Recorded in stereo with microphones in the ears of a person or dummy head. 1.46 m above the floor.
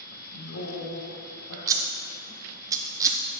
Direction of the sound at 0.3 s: 85° left.